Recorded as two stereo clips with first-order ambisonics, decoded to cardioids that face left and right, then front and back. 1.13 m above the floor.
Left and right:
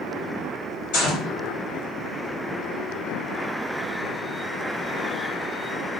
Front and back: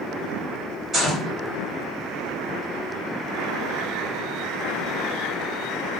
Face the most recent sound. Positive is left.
turn(degrees=100)